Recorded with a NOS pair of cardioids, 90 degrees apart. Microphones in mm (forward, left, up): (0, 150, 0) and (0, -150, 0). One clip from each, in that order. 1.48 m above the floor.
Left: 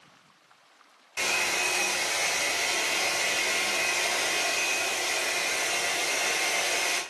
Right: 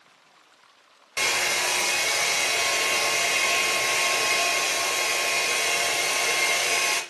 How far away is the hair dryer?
About 0.8 m.